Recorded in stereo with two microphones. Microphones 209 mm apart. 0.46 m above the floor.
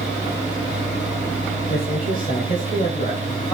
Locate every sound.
1.7 s a man speaking: 45° left (ahead or behind), 2 m; by 3.5 s 30° left (ahead or behind), 3 m